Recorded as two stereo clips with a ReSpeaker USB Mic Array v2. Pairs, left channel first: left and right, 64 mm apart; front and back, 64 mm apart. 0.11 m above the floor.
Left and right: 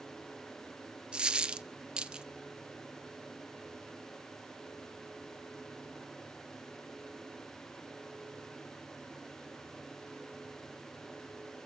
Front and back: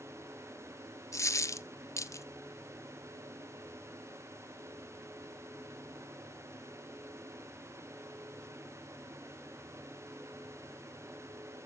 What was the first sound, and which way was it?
A dropped coin, 15° right.